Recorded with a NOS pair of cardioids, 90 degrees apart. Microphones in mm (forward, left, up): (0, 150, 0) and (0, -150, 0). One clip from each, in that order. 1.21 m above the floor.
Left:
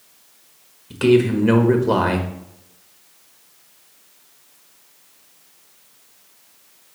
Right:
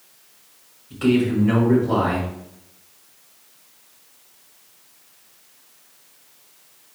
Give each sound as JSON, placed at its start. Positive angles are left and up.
{"t": 0.9, "sound": "a man speaking", "azimuth_deg": 65, "distance_m": 1.5}